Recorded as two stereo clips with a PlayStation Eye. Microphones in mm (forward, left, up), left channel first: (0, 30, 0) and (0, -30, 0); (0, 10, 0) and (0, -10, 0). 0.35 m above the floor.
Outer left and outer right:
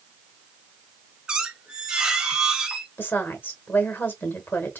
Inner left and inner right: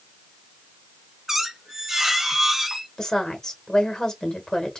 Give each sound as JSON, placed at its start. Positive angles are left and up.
{"t": 1.3, "sound": "a squeak", "side_deg": -15, "distance_m": 1.0}
{"t": 3.0, "sound": "a woman speaking", "side_deg": 35, "distance_m": 1.2}